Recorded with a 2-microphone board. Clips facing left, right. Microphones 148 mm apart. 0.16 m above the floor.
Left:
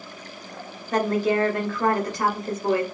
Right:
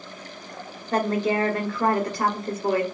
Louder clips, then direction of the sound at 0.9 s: Left 1 dB; 10° right (ahead or behind).